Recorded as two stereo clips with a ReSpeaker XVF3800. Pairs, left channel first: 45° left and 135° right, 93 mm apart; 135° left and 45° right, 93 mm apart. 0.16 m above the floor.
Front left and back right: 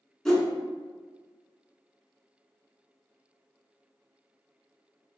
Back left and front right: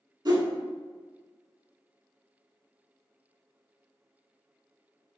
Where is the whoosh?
40° right, 0.7 m.